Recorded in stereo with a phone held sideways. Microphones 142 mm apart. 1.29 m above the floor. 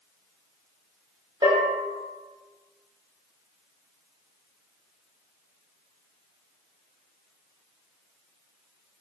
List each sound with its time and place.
1.4 s a bell: 35° right (ahead or behind), 0.7 m